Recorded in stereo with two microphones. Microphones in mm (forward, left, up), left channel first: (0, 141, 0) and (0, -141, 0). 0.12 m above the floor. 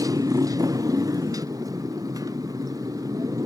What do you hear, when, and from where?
0.0 s a motorcycle: 10° right (ahead or behind)